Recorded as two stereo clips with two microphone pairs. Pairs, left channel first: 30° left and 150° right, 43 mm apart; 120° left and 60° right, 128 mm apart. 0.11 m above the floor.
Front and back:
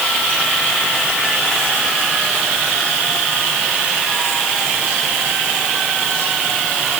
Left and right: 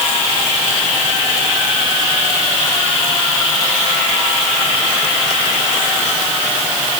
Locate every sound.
Only background noise.